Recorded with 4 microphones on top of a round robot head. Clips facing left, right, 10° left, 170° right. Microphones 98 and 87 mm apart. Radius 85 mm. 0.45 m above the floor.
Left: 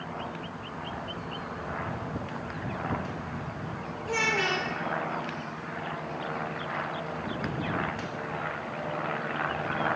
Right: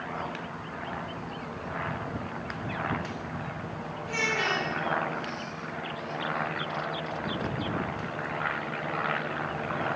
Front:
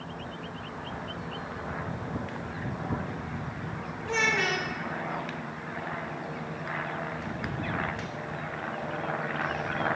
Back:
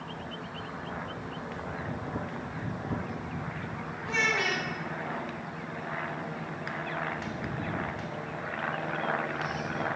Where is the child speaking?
55° left, 1.4 m.